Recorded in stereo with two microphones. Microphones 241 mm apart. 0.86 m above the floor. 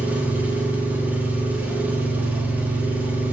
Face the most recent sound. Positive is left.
turn(degrees=-5)  # may be behind; listen again after turning